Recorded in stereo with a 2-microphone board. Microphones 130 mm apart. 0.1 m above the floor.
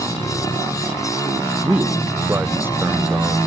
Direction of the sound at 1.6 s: 15° right (ahead or behind).